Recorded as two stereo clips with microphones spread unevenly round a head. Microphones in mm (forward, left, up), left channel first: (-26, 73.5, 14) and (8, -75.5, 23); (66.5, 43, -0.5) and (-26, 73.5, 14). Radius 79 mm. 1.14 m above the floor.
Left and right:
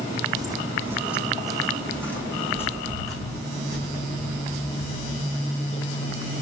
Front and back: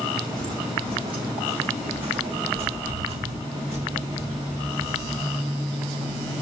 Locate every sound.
0.4 s footsteps: 140° right, 2.5 m; by 6.3 s 155° left, 7 m